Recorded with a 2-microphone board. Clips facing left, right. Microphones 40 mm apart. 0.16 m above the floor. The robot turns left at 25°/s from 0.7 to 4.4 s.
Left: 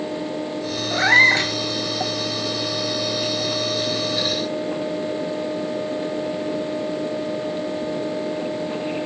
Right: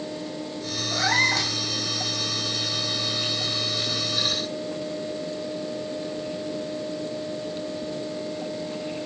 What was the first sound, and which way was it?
A cat meowing, 35° left (ahead or behind).